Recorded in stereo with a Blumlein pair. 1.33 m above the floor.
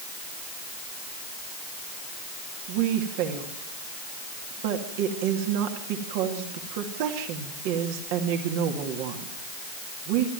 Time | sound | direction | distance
2.7 | a woman speaking | 45° right | 2.5 m